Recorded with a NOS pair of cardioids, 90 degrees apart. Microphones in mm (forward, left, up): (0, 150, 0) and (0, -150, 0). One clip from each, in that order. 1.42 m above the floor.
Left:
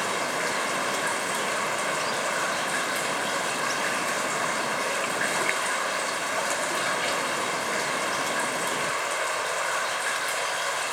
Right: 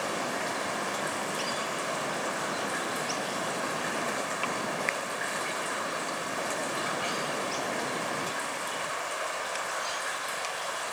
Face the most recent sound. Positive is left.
turn(degrees=45)